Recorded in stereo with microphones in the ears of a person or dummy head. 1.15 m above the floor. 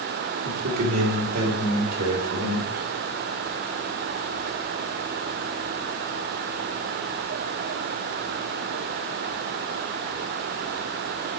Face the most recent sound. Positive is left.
turn(degrees=-80)